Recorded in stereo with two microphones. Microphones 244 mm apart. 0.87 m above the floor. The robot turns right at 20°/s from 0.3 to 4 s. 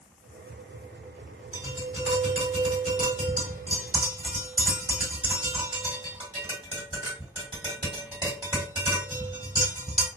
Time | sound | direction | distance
1.5 | tapping | 65° right (ahead or behind) | 1.8 m